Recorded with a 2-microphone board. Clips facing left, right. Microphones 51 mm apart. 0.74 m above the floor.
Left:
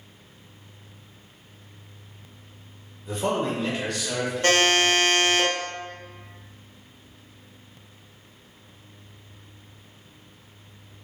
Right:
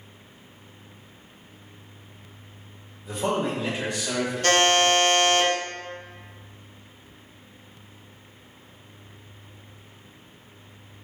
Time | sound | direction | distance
3.0 | a man speaking | centre (ahead or behind) | 1.4 m
4.4 | a buzzer | 25° left (ahead or behind) | 0.9 m